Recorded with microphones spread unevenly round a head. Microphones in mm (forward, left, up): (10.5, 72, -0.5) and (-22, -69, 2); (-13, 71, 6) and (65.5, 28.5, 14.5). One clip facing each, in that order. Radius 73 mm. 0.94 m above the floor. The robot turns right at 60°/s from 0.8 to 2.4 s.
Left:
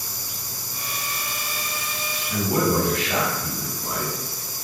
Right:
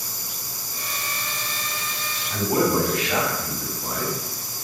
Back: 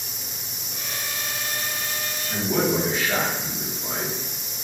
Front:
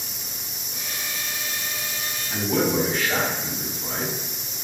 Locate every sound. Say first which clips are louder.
2.3 s a man speaking: right 1 dB, even; 70° left, 1.7 m; by 4.2 s 75° left, 1.7 m